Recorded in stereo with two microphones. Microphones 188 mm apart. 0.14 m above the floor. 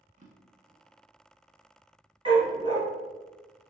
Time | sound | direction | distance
0.2 | a drawer | 40° right (ahead or behind) | 0.6 m
2.2 | a dog barking | 25° right (ahead or behind) | 1.1 m